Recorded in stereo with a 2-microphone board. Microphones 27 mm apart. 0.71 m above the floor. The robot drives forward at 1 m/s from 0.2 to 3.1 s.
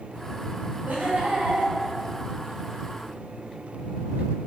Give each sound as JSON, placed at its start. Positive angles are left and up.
{"t": 0.9, "sound": "laughter", "side_deg": -70, "distance_m": 5.5}